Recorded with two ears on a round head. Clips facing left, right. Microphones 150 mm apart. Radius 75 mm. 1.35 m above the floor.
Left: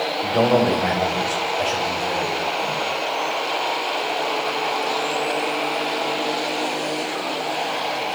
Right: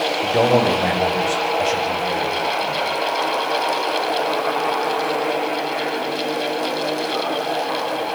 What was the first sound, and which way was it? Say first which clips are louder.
A man speaking: right 1 dB; 20° right (ahead or behind).